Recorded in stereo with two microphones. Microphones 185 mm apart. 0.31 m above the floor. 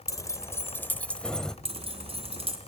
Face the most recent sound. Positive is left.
turn(degrees=-30)  # may be behind; listen again after turning